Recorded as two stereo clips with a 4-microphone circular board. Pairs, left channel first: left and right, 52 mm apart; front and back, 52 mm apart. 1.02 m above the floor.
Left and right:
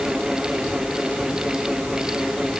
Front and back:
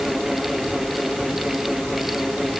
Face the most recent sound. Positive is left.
No sound to turn to.